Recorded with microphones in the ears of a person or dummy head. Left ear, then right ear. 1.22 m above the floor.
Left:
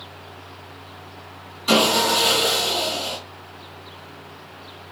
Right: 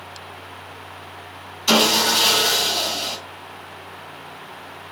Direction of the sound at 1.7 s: 50° right (ahead or behind).